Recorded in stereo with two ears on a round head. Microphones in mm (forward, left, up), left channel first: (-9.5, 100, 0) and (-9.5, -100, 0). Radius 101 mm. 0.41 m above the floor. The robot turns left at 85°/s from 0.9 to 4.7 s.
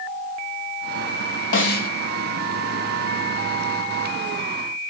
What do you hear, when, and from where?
1.5 s a snare drum: 75° left, 2 m; by 1.9 s 40° left, 2 m